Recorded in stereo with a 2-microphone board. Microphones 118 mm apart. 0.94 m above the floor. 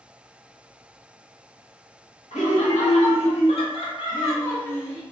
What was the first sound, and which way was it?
Laughter, 75° left (ahead or behind).